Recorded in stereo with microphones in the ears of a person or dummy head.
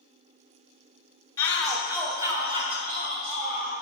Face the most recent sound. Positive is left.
turn(degrees=-40)  # may be behind; listen again after turning